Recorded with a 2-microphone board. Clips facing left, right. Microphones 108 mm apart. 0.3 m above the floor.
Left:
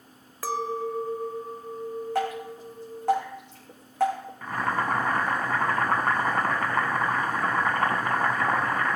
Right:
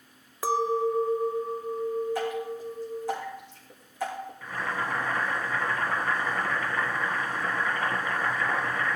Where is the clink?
20° right (ahead or behind), 0.6 m.